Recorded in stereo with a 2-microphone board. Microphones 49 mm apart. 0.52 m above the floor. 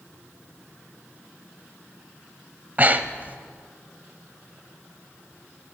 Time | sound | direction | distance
2.8 | breathing | 35° right (ahead or behind) | 0.7 m